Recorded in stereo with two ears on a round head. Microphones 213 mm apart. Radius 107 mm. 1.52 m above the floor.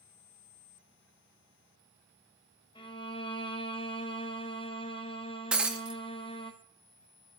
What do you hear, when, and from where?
2.8 s a violin: 20° left (ahead or behind), 0.8 m
5.5 s breaking glass: 5° right (ahead or behind), 0.7 m